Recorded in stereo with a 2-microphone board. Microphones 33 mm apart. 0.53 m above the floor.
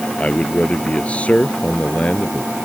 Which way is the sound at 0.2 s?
35° left (ahead or behind).